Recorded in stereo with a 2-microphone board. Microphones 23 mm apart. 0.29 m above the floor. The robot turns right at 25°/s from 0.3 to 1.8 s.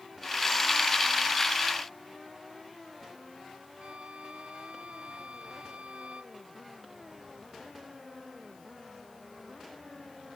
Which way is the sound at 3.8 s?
80° right.